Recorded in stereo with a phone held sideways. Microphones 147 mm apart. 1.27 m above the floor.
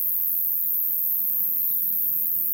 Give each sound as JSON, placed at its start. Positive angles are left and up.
{"t": 0.0, "sound": "an insect", "side_deg": -35}